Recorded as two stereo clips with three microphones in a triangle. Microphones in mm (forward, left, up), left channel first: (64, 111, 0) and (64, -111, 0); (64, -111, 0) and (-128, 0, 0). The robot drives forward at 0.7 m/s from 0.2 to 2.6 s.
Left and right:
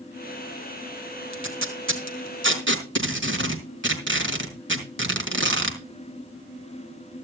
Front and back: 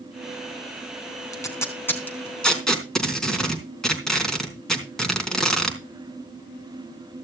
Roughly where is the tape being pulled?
Right.